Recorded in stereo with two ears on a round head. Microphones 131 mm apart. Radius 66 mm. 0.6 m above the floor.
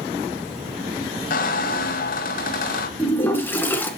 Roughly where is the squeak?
Left.